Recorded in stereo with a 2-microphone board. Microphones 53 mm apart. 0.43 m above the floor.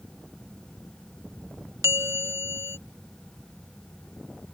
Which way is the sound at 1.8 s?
60° right (ahead or behind).